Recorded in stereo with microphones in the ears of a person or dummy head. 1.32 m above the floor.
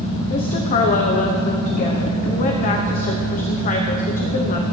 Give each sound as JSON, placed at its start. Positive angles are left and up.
{"t": 0.3, "sound": "a woman speaking", "side_deg": 45, "distance_m": 1.1}